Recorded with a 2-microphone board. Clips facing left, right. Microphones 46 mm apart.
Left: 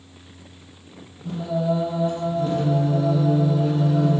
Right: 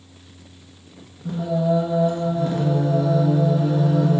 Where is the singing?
60° right (ahead or behind), 1.6 m.